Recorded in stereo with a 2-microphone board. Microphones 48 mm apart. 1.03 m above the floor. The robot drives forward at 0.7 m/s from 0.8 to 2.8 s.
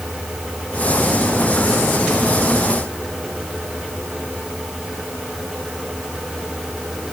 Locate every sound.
Only background noise.